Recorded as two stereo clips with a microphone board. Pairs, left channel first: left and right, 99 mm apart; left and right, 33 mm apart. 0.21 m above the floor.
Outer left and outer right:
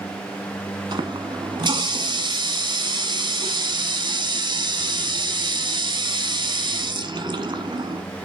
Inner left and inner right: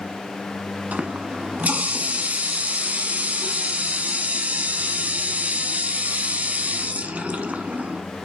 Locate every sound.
0.9 s a running tap: 50° right (ahead or behind), 1.1 m